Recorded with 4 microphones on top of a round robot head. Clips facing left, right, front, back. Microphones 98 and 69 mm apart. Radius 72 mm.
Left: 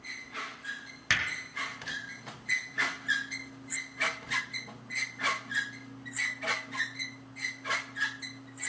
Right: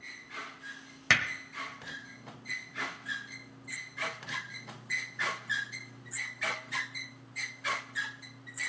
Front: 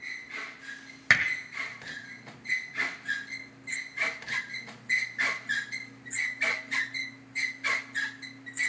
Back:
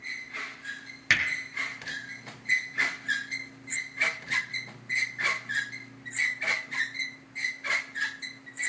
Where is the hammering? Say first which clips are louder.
Right 3 dB, front 2 dB; 55° right, 1.4 m.